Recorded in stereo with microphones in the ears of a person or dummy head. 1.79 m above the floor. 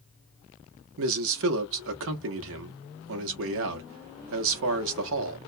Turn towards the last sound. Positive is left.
turn(degrees=-80)